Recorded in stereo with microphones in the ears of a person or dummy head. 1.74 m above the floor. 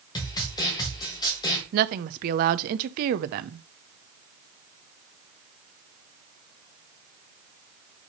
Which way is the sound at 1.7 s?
45° right (ahead or behind).